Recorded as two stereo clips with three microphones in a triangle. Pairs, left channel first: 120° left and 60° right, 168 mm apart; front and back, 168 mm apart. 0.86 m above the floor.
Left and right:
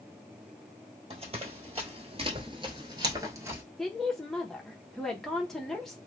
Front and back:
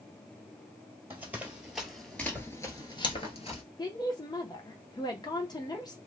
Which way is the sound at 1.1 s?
105° right.